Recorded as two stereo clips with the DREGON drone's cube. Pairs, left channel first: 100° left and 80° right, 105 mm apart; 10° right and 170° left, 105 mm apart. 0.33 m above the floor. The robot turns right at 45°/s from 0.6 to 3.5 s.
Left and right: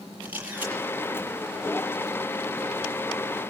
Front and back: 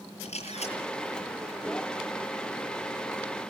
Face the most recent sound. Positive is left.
turn(degrees=125)